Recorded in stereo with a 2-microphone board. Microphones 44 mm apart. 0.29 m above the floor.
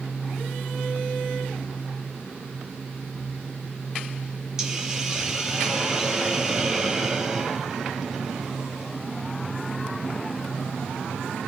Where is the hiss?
15° right (ahead or behind), 3.5 m.